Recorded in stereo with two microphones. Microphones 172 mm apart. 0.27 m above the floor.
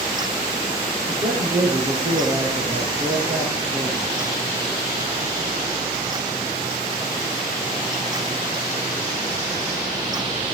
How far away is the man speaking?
About 5 m.